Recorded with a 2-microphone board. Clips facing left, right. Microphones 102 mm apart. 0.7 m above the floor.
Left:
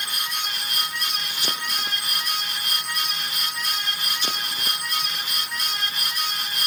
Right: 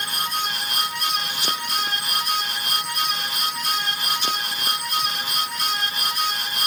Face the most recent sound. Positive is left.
No sound to turn to.